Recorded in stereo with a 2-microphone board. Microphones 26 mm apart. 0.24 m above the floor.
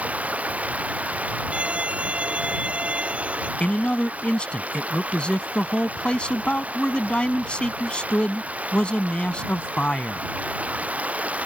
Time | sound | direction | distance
0.0 | running water | 75° right (ahead or behind) | ?
1.5 | a violin | 55° right (ahead or behind) | ?
3.6 | a man speaking | 45° left (ahead or behind) | ?